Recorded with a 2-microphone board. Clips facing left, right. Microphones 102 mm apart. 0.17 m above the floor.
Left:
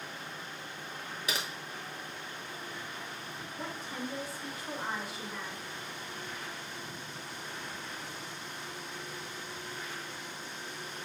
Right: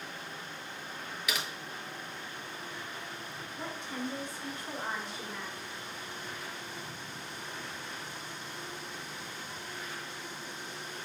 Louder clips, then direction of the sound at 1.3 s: Even; 35° left (ahead or behind).